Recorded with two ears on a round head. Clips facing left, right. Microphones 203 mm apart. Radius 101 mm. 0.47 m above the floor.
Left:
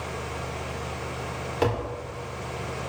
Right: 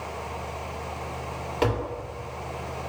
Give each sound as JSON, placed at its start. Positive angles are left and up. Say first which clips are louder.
{"t": 1.6, "sound": "tapping", "louder": "even", "side_deg": 5, "distance_m": 1.7}